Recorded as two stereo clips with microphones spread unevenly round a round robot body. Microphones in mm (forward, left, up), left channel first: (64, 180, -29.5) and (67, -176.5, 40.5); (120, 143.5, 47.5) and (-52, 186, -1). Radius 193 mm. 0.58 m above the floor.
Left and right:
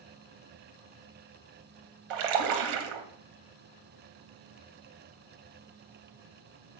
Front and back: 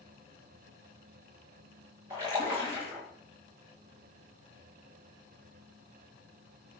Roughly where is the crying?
No crying in this recording.